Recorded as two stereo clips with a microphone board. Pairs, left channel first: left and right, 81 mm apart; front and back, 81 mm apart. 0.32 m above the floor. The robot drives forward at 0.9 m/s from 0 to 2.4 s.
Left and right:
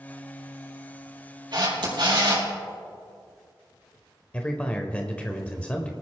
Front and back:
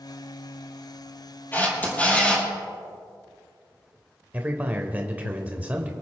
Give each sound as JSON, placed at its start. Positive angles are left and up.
{"t": 1.5, "sound": "a camera shutter", "azimuth_deg": -65, "distance_m": 4.0}
{"t": 4.3, "sound": "a man speaking", "azimuth_deg": 140, "distance_m": 0.9}